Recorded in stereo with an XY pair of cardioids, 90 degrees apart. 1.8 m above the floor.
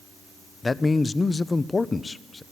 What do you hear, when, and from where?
0.6 s a man speaking: 25° left, 0.7 m